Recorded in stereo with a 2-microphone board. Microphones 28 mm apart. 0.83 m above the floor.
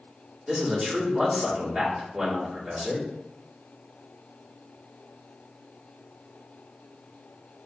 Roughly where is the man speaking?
Centre.